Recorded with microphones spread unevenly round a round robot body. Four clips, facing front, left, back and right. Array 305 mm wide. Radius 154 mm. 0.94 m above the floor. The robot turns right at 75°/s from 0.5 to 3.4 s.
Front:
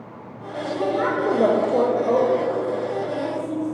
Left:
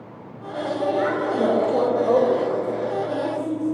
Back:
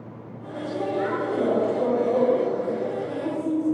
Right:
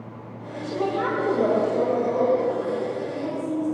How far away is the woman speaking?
About 5 m.